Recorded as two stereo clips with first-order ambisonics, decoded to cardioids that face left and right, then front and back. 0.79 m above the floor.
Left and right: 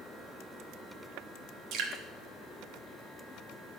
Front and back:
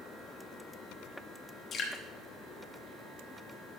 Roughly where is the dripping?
Ahead right.